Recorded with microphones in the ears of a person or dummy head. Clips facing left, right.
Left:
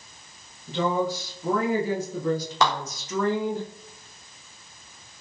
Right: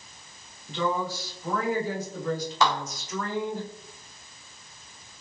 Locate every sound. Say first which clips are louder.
0.7 s a woman speaking: left 4 dB; 40° left (ahead or behind), 1.7 m; by 3.6 s 55° left (ahead or behind), 1.2 m
2.6 s a clap: left 1 dB; 50° left (ahead or behind), 1.2 m